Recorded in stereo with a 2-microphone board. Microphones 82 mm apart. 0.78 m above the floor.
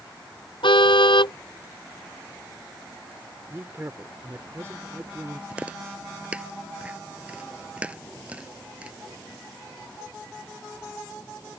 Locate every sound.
0.6 s a car horn: 80° left
3.5 s a woman speaking: 30° right (ahead or behind)
5.5 s chewing: 15° right (ahead or behind)